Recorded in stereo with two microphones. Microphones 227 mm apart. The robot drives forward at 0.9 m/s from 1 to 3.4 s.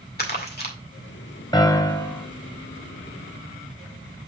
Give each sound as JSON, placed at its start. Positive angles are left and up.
{"t": 0.2, "sound": "crumpling", "side_deg": 45, "distance_m": 2.0}
{"t": 1.5, "sound": "a piano", "side_deg": 20, "distance_m": 1.1}